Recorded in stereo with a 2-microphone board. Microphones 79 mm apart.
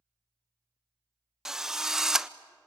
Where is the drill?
5° right (ahead or behind), 0.6 m.